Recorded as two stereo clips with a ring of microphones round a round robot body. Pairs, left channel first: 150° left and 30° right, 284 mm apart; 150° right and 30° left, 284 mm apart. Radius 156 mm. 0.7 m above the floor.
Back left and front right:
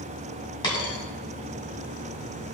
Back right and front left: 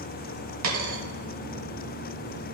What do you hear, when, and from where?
0.6 s a dropped coin: 75° left, 1.7 m